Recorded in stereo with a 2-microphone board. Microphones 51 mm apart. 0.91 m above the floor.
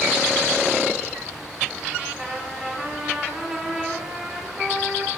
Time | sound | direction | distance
2.1 | a trumpet | 20° right (ahead or behind) | 6.5 m